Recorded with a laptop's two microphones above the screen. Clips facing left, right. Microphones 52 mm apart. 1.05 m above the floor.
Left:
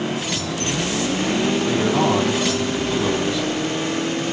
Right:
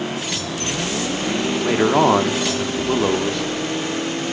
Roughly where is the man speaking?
Right.